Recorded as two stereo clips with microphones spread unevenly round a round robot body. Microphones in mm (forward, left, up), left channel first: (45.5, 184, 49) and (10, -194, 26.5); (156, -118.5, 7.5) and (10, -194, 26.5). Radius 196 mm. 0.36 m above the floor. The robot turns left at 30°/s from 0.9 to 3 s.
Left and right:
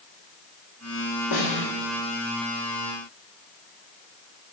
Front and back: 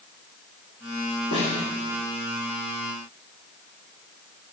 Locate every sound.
1.3 s a snare drum: 70° left, 4.5 m; by 1.7 s 60° left, 4.5 m